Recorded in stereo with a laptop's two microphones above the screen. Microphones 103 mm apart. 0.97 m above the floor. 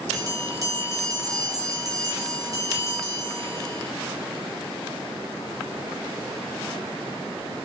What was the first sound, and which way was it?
A bell, 35° right (ahead or behind).